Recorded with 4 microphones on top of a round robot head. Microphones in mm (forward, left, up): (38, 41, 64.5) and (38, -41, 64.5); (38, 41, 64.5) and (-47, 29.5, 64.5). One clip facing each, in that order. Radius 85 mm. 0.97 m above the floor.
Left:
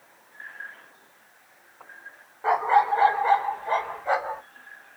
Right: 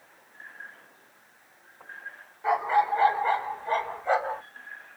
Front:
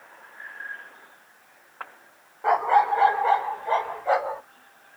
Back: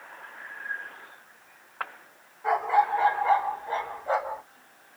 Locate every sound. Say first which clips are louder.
2.4 s a dog barking: left 3 dB, front 3 dB; 35° left, 1.5 m; by 4.4 s 5° left, 1.9 m